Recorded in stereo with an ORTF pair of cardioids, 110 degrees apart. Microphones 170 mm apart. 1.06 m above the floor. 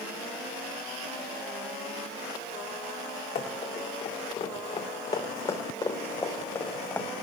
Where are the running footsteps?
50° left, 5 m; by 7.1 s 10° left, 3.5 m.